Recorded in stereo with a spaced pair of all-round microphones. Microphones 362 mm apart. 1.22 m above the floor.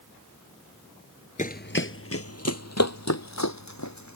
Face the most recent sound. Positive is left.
turn(degrees=50)  # may be behind; listen again after turning